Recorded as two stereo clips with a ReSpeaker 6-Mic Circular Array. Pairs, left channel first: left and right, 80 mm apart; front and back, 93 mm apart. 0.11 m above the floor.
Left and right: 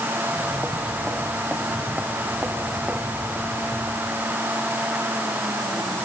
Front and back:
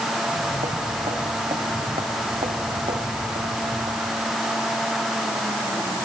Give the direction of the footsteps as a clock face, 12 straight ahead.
6 o'clock.